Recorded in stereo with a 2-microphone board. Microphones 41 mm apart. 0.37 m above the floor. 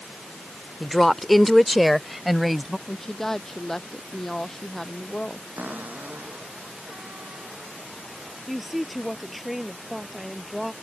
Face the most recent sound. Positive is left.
turn(degrees=-5)  # may be behind; listen again after turning